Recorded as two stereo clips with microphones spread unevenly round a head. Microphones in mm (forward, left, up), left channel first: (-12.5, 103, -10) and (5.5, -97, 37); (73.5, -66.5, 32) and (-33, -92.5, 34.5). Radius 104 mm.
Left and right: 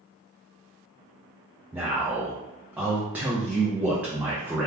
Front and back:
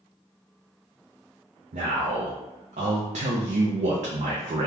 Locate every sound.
1.7 s a man speaking: 170° right, 0.5 m